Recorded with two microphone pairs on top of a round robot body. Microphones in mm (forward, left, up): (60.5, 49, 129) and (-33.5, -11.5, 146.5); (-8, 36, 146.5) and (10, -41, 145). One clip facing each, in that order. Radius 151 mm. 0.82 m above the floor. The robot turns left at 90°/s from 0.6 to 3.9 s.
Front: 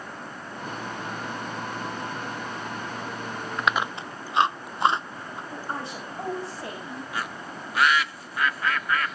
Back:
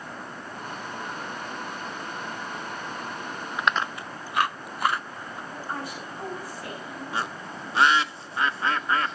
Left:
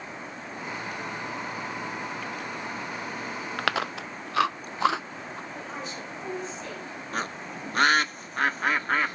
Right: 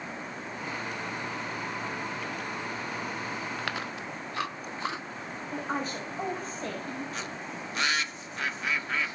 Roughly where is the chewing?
Behind left.